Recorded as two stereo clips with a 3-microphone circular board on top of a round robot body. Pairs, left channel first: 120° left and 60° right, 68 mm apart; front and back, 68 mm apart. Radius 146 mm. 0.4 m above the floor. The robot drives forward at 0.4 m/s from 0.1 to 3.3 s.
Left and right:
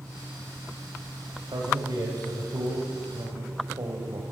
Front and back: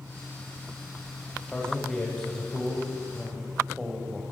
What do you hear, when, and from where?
1.5 s a man speaking: 75° right, 3 m; by 4.2 s 90° right, 3 m